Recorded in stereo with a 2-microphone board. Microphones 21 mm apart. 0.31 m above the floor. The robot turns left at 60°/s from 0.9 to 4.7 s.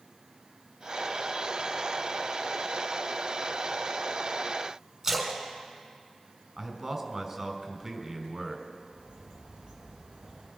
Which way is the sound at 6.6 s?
20° right (ahead or behind).